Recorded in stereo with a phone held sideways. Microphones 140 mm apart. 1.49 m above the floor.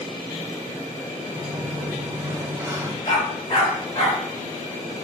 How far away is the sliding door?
About 0.9 m.